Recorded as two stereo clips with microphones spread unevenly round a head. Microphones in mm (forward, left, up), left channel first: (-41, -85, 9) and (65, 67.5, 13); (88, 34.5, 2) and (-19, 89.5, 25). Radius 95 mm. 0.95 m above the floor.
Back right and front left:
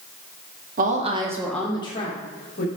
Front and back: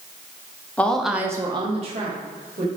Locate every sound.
0.8 s a woman speaking: 35° left, 1.1 m; by 2.7 s 170° right, 1.9 m